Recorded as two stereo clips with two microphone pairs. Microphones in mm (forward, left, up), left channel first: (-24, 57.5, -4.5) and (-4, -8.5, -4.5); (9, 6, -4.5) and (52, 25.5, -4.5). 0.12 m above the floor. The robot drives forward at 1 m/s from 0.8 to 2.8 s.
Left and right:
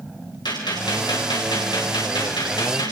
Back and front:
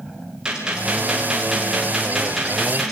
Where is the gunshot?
100° left, 9.5 m; by 2.9 s 110° left, 10 m.